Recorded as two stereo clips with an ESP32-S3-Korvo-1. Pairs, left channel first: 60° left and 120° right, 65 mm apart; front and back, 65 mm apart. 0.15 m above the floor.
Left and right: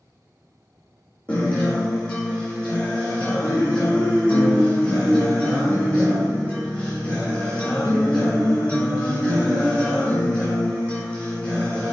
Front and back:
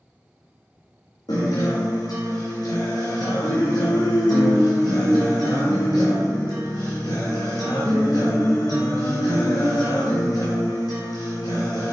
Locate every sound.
1.3 s a guitar: 10° right, 3 m